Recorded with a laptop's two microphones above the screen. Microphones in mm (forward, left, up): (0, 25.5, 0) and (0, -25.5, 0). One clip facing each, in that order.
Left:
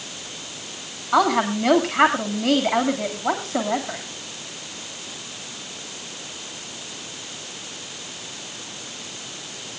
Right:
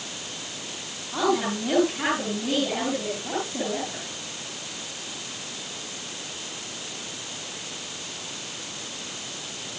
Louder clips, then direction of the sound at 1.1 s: Left 6 dB; 80° left.